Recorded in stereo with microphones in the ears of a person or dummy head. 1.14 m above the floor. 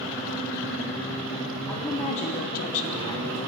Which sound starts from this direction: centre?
A woman speaking, at 1.7 s.